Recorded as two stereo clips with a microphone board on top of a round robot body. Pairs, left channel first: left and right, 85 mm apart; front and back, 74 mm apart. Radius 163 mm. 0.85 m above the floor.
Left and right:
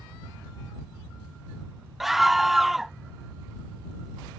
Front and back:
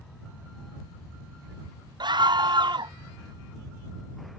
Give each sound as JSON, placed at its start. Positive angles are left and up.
{"t": 2.0, "sound": "a scream", "azimuth_deg": 180}